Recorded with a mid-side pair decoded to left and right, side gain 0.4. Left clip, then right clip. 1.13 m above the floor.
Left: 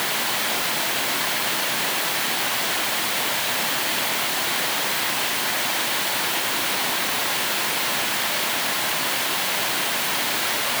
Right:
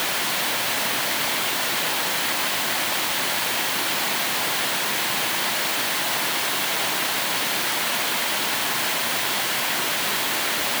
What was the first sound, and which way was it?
Only background noise.